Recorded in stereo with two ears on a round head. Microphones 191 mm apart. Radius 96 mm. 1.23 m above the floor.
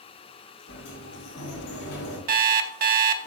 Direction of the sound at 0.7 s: 80° left.